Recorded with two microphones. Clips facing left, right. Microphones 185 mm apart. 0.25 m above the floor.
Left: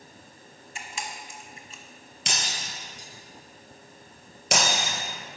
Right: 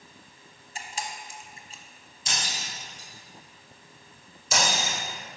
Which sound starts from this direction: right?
A camera shutter, at 0.8 s.